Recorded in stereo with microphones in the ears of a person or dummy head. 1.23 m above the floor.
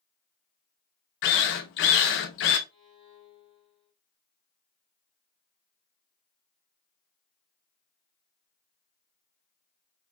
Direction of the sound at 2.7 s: 25° left (ahead or behind).